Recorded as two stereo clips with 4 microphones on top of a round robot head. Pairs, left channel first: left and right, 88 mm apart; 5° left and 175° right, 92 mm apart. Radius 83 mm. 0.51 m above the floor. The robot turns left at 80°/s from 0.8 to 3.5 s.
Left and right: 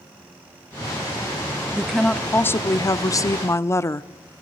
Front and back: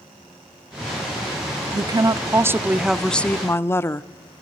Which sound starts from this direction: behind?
A woman speaking, at 1.7 s.